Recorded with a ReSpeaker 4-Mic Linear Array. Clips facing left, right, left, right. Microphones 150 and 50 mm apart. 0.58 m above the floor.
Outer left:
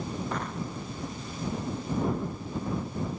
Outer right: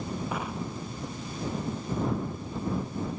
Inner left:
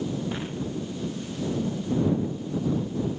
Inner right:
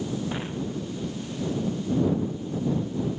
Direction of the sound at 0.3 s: 10° right (ahead or behind).